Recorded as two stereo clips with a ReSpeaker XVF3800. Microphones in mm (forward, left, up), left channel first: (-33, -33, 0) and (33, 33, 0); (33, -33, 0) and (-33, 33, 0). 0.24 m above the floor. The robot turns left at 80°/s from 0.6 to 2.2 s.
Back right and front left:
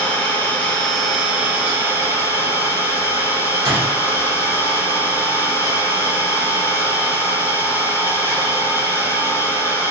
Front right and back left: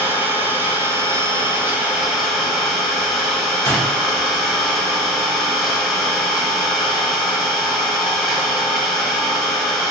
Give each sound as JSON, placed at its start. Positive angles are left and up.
{"t": 0.0, "sound": "an engine running", "azimuth_deg": 175, "distance_m": 0.8}
{"t": 3.6, "sound": "a door slam", "azimuth_deg": 95, "distance_m": 1.9}